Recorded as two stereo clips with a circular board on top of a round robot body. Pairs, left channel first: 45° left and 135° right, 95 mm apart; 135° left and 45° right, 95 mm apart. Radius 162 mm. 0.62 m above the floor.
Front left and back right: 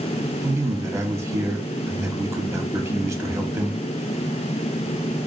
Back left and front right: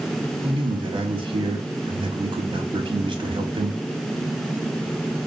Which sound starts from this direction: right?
A man speaking, at 0.4 s.